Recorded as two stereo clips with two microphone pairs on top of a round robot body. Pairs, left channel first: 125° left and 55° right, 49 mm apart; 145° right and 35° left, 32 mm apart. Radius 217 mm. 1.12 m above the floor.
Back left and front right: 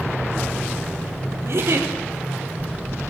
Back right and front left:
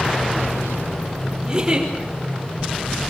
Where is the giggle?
30° right, 5.5 m.